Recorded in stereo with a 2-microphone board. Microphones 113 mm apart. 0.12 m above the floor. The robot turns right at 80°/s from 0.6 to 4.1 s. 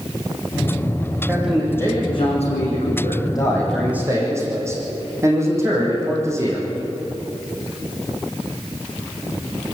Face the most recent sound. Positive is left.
turn(degrees=-155)